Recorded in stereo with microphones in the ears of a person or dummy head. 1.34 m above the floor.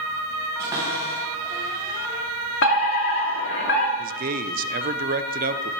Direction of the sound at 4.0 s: 40° right (ahead or behind).